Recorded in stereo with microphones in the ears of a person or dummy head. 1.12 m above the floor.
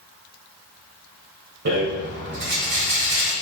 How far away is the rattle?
About 2 m.